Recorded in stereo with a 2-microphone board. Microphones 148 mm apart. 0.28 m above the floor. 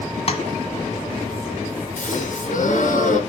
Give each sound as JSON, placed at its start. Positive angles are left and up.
{"t": 0.3, "sound": "tapping", "side_deg": 45, "distance_m": 1.6}
{"t": 2.0, "sound": "a gasp", "side_deg": 70, "distance_m": 3.0}